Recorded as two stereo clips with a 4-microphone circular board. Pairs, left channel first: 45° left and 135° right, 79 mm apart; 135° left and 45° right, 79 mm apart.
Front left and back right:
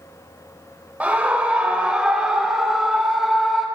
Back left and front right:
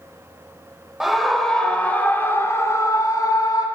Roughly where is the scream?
Behind right.